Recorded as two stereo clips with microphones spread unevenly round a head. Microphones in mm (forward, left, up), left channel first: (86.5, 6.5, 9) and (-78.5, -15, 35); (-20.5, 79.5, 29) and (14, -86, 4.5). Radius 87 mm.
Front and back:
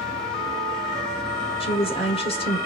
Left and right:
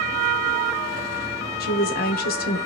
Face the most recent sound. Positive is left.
turn(degrees=70)